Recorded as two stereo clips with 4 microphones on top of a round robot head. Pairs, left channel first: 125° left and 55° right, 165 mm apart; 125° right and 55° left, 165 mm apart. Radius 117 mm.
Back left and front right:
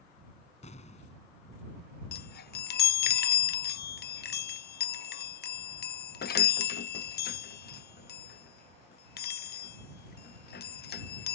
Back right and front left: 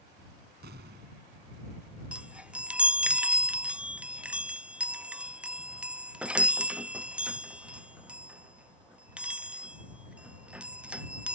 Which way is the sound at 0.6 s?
75° left.